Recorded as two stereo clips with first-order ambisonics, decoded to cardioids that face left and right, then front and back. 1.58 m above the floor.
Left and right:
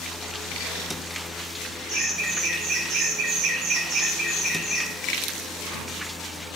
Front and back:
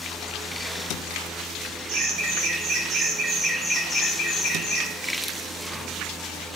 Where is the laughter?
140° right, 1.2 m; by 4.9 s 5° right, 0.7 m.